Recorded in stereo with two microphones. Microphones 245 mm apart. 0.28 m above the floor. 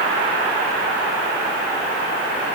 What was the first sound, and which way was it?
Only background noise.